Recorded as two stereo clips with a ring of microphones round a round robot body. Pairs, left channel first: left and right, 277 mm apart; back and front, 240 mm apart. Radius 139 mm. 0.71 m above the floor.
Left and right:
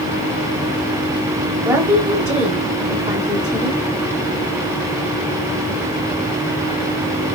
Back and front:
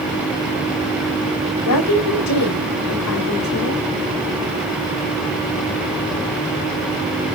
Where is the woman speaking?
170° right, 4 m.